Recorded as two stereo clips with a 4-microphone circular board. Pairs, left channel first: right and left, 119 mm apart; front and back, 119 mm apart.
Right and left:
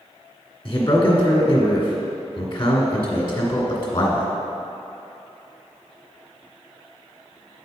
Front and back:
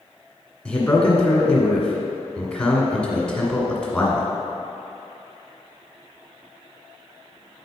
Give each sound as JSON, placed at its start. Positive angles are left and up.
{"t": 0.7, "sound": "a man speaking", "azimuth_deg": -80, "distance_m": 1.5}